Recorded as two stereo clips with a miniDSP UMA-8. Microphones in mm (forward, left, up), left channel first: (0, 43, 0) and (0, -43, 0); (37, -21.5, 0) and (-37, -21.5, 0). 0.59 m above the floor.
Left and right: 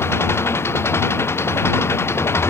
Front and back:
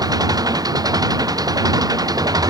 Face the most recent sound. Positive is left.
turn(degrees=150)